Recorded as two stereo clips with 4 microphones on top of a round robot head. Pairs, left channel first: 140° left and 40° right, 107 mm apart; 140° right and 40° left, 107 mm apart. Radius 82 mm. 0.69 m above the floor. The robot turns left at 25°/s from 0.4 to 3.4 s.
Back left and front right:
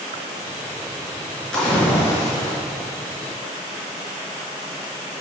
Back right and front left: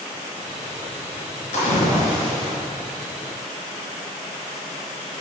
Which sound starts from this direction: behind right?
A splash, at 1.5 s.